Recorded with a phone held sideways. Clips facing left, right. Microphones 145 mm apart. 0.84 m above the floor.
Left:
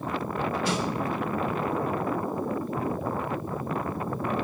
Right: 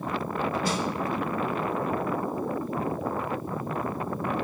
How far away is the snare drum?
About 3 m.